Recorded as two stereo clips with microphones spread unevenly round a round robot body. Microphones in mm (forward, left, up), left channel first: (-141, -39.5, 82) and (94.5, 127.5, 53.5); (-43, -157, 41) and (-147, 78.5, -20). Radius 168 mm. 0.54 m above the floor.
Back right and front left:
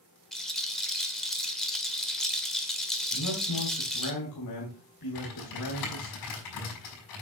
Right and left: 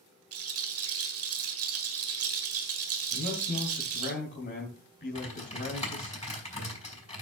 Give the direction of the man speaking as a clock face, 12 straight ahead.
4 o'clock.